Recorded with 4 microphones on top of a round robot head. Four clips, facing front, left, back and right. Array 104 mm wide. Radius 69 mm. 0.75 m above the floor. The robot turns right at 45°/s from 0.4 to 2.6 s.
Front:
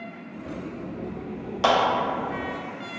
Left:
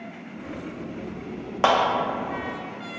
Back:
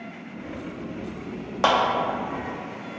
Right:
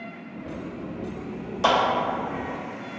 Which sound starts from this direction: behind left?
A clap, at 1.6 s.